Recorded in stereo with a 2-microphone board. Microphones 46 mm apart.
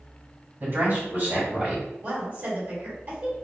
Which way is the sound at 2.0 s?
40° right (ahead or behind).